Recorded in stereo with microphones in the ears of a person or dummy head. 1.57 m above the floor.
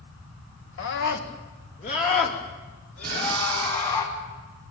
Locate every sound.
0.8 s a scream: 65° left (ahead or behind), 1.8 m; by 4.0 s 40° left (ahead or behind), 5 m
3.0 s breathing: 25° right (ahead or behind), 1.4 m